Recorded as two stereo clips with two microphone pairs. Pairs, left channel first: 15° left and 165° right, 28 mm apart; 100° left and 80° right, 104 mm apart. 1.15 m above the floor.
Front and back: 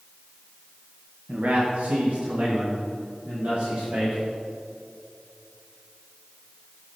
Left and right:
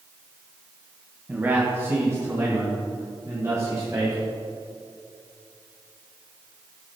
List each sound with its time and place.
1.3 s a man speaking: 155° right, 1.2 m; by 4.2 s 140° right, 4.5 m